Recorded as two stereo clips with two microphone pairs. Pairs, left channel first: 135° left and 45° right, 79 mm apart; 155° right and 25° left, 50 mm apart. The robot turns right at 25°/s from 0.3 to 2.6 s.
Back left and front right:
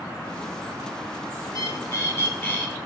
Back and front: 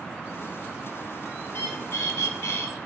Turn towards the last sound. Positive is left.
turn(degrees=-160)